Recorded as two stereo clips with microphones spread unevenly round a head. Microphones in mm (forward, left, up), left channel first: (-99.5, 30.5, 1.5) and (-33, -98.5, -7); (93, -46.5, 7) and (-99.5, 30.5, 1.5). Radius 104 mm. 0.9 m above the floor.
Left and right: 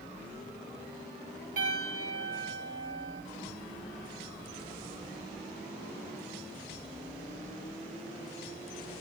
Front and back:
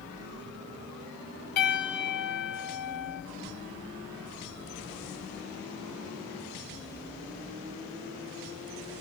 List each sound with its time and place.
1.6 s a piano: 10° right, 2 m